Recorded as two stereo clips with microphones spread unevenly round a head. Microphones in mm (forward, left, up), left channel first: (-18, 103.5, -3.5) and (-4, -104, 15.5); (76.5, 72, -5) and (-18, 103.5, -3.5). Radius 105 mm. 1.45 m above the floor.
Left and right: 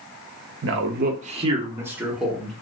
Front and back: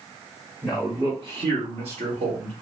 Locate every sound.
0.6 s a man speaking: 110° right, 0.7 m; by 2.5 s straight behind, 1.1 m